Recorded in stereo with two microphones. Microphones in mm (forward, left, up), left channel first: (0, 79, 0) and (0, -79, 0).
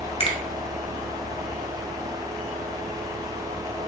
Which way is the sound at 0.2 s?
40° left (ahead or behind).